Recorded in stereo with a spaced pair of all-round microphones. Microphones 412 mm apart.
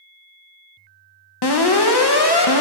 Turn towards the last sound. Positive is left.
turn(degrees=70)  # may be behind; listen again after turning